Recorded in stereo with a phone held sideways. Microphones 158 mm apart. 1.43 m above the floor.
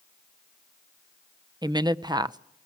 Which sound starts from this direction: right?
A woman speaking, at 1.6 s.